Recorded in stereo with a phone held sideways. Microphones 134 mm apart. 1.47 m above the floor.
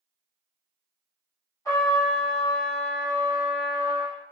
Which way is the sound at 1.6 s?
25° left (ahead or behind).